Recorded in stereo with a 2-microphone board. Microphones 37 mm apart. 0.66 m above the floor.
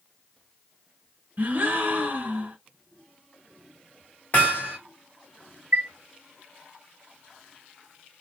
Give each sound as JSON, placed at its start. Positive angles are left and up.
{"t": 1.4, "sound": "a gasp", "side_deg": -40, "distance_m": 1.5}
{"t": 4.3, "sound": "hammering", "side_deg": 50, "distance_m": 2.0}
{"t": 5.7, "sound": "a chime", "side_deg": -80, "distance_m": 1.0}